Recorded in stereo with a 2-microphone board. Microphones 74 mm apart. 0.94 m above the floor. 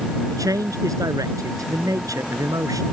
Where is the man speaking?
50° right (ahead or behind).